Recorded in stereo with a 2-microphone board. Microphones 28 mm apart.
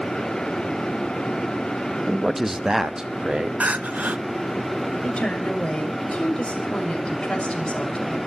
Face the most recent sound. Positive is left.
turn(degrees=40)  # may be behind; listen again after turning